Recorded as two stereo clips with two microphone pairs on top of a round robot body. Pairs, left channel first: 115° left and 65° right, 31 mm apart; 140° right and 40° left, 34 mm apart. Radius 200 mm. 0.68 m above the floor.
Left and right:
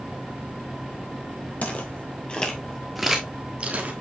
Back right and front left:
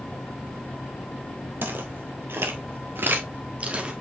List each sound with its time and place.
1.6 s footsteps: 70° left, 1.9 m; by 3.9 s 25° right, 1.4 m